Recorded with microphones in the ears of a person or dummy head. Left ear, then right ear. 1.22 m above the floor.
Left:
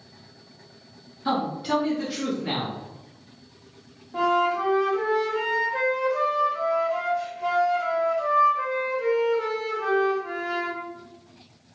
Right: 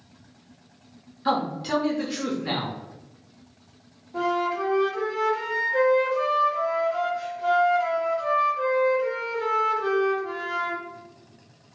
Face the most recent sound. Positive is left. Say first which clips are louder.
# left 3 dB
turn(degrees=30)  # may be behind; listen again after turning